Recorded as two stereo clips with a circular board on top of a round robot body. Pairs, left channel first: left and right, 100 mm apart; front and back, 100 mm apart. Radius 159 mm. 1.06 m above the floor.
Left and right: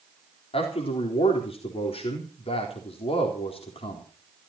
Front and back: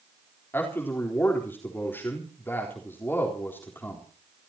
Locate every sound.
0.5 s a man speaking: 70° left, 4 m